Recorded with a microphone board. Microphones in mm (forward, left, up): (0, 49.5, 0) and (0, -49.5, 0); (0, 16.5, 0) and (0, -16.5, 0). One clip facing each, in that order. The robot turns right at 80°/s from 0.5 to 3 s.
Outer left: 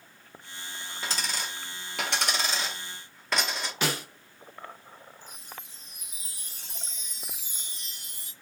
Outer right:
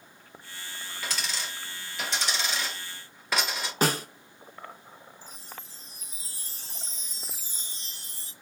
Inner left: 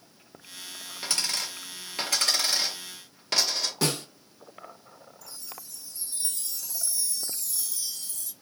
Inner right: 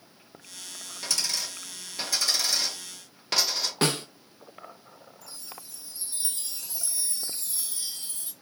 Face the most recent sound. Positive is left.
turn(degrees=-35)  # may be behind; listen again after turning